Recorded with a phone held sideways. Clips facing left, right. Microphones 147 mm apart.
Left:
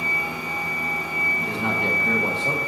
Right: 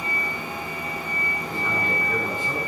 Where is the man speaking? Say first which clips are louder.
Left 4 dB; 85° left, 1.6 m.